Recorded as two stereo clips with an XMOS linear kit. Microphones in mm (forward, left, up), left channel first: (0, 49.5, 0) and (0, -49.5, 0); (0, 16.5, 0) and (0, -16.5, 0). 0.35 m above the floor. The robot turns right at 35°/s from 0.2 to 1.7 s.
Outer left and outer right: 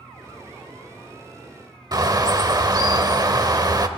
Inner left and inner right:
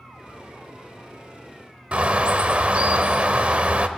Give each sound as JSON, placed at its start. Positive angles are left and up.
{"t": 1.9, "sound": "a bird", "side_deg": -40, "distance_m": 0.8}